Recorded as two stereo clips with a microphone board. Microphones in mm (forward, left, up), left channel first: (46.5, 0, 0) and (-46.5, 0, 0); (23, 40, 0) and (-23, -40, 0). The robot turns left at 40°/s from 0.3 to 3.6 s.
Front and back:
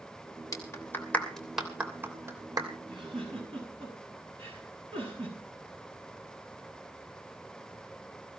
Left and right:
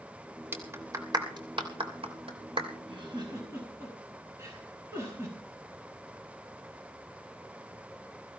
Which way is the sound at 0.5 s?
50° right.